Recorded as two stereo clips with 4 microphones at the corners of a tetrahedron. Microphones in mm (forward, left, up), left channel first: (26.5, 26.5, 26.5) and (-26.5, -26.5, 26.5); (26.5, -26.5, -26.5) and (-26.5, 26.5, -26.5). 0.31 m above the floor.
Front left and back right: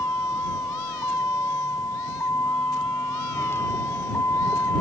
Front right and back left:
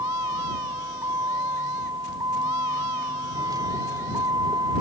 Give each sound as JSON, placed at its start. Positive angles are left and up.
{"t": 0.0, "sound": "a vehicle", "azimuth_deg": 100}